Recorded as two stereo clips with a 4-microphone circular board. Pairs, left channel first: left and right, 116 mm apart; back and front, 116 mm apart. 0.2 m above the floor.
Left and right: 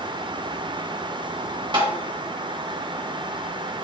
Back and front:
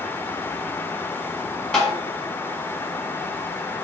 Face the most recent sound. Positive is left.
turn(degrees=-95)